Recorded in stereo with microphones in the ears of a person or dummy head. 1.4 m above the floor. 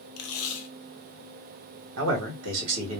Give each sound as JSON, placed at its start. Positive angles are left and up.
{"t": 0.2, "sound": "tape being pulled", "side_deg": 80, "distance_m": 0.7}
{"t": 2.0, "sound": "a man speaking", "side_deg": -75, "distance_m": 1.6}